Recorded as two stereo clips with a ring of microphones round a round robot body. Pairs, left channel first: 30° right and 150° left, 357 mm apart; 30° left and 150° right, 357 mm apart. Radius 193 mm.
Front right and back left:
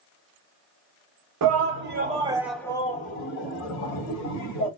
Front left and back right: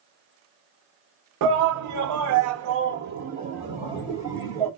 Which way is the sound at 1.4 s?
Straight behind.